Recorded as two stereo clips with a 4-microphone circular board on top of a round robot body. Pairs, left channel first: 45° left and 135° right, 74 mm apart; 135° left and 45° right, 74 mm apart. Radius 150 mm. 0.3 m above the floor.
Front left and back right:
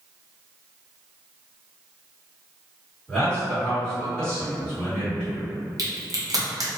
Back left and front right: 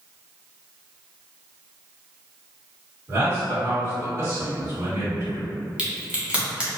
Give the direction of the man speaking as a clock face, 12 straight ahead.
1 o'clock.